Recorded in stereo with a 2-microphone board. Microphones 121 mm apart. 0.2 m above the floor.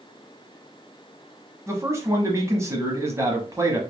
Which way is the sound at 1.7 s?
25° right (ahead or behind).